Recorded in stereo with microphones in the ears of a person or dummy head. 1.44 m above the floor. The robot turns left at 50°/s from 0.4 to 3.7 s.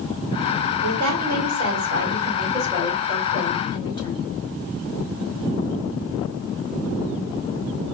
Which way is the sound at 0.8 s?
60° right.